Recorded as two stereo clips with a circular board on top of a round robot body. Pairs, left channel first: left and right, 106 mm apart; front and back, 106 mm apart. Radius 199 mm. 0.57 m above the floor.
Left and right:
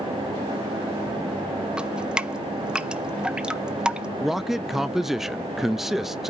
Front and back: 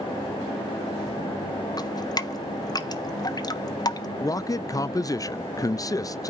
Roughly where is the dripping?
Ahead.